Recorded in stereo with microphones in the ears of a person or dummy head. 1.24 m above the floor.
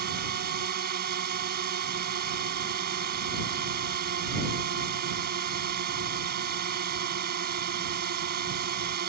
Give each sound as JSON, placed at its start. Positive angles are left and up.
{"t": 0.0, "sound": "a drone", "side_deg": -55}